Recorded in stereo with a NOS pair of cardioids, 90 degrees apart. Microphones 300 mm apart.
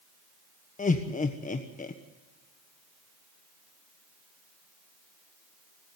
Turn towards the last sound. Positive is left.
turn(degrees=25)